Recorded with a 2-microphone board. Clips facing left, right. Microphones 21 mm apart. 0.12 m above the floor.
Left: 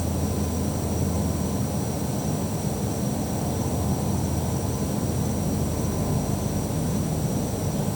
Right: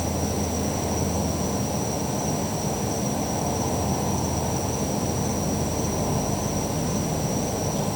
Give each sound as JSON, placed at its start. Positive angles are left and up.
{"t": 0.0, "sound": "an insect", "side_deg": -45}